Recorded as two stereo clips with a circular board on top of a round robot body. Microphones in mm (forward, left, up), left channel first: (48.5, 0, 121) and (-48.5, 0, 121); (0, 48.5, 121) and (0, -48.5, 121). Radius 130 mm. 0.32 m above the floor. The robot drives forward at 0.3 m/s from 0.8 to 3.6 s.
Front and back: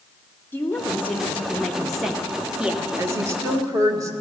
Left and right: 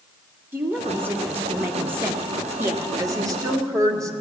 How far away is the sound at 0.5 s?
About 1.2 m.